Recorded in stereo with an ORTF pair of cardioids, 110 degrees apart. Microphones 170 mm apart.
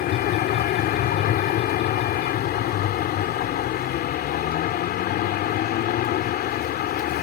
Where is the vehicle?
65° left.